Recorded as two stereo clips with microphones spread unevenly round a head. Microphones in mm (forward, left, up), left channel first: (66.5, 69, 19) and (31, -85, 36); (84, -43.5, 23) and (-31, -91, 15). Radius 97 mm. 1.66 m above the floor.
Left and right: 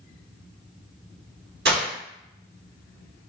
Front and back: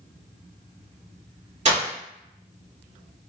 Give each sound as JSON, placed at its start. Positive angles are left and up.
{"t": 1.6, "sound": "breaking glass", "azimuth_deg": -135, "distance_m": 2.0}